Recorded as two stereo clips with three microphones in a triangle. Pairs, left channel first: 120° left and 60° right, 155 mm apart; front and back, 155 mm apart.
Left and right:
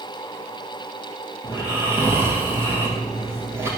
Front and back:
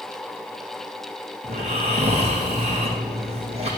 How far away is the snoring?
About 2.5 m.